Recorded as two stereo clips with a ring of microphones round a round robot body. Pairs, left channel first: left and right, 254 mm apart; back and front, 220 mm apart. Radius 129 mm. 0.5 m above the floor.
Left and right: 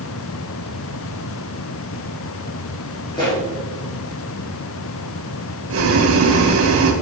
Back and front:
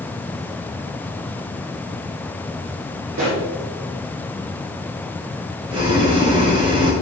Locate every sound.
3.1 s a pop: 20° left, 4.5 m
5.7 s boiling: 70° right, 1.8 m